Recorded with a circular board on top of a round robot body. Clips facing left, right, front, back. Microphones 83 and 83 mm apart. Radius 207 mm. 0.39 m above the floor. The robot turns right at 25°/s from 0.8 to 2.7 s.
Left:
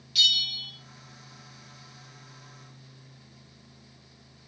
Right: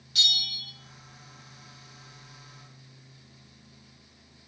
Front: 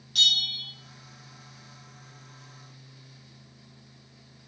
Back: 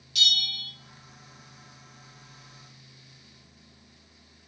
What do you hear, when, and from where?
0.1 s a bell: 35° right, 2 m